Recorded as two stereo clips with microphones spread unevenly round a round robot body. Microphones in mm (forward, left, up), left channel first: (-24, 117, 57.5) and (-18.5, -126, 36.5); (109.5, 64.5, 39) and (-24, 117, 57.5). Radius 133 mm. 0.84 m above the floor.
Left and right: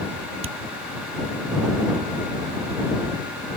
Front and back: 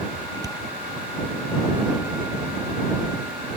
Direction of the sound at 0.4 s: 125° right.